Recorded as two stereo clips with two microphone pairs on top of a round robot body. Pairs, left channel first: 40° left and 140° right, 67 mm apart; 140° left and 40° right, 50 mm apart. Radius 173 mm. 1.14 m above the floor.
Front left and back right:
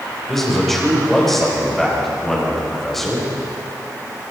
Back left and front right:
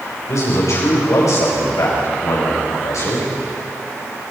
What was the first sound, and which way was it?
A man speaking, 125° left.